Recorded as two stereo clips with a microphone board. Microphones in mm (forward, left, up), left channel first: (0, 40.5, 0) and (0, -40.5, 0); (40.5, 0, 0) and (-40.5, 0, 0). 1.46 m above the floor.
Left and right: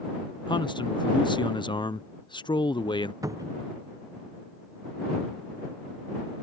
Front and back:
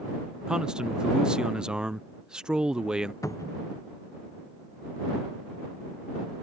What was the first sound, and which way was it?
A man speaking, 100° left.